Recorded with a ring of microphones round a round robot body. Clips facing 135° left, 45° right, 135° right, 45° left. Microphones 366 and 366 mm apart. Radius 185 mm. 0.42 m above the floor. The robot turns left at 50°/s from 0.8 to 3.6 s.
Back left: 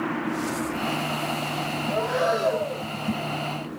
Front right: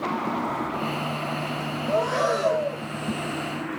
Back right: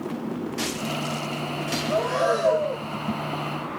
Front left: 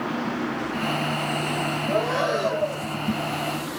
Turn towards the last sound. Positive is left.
turn(degrees=-150)